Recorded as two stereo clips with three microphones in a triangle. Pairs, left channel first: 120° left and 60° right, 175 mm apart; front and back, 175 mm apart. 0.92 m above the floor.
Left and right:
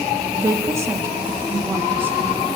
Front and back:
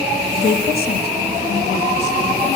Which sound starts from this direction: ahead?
A woman speaking, at 0.4 s.